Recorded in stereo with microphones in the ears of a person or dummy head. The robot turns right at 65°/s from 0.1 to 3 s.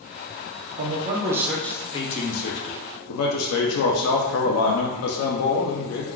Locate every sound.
0.8 s a man speaking: 55° right, 0.5 m; by 6.1 s 90° left, 0.5 m